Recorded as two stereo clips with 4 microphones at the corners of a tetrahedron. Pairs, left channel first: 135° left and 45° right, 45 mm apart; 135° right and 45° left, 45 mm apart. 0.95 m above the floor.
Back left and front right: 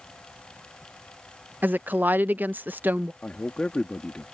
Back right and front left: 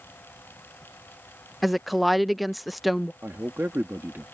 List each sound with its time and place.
1.6 s a woman speaking: 45° right
3.2 s a man speaking: 70° left